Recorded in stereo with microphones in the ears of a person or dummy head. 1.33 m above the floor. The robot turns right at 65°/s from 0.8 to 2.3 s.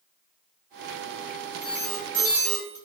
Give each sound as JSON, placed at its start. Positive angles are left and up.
{"t": 1.6, "sound": "an alarm", "azimuth_deg": 90, "distance_m": 0.6}